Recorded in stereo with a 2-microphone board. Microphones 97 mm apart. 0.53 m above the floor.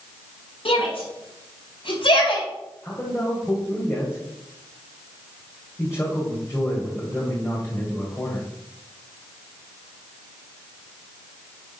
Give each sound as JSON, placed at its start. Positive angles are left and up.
{"t": 0.7, "sound": "a shout", "side_deg": 65, "distance_m": 5.0}
{"t": 2.8, "sound": "a man speaking", "side_deg": 25, "distance_m": 2.5}